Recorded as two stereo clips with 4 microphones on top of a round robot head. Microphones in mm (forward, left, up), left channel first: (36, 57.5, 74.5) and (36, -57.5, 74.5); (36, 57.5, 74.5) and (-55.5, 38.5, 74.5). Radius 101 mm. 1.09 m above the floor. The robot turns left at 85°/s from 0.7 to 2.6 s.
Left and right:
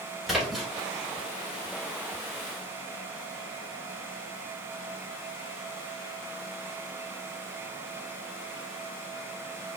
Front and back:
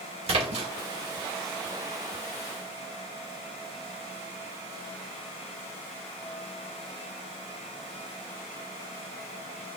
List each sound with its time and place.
0.3 s a splash: straight behind, 2.5 m